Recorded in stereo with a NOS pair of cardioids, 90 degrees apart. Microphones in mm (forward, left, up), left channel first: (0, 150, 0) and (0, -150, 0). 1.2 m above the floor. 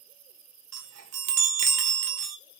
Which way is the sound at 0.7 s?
60° right.